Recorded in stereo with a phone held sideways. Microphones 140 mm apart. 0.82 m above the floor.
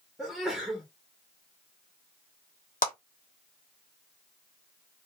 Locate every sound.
0.2 s a sneeze: centre (ahead or behind), 1.2 m
2.8 s a clap: 75° left (ahead or behind), 1.3 m